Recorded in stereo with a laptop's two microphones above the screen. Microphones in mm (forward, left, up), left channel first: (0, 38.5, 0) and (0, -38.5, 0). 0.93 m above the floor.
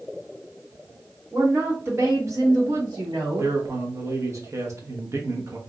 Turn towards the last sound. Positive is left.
turn(degrees=-45)  # may be behind; listen again after turning